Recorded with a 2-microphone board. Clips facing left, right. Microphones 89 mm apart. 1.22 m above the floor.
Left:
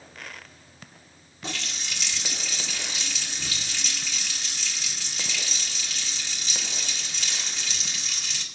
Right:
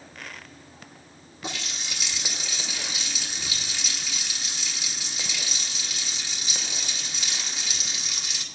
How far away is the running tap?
About 2.5 m.